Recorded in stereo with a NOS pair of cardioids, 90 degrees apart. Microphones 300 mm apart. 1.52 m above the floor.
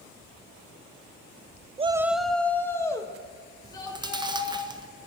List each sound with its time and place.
1.8 s a shout: 20° right, 0.5 m; by 4.6 s 15° left, 4.5 m
3.6 s chewing: 15° right, 0.8 m